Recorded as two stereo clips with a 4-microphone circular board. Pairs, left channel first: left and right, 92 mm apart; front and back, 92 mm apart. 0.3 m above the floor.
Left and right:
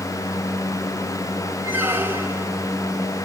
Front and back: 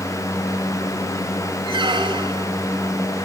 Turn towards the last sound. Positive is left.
turn(degrees=-155)